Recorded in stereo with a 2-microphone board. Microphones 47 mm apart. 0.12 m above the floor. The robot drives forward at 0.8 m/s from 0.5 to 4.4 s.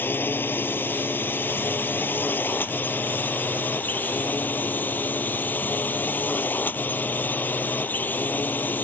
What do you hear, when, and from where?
0.0 s a drone: 45° left (ahead or behind); by 8.8 s 40° left (ahead or behind)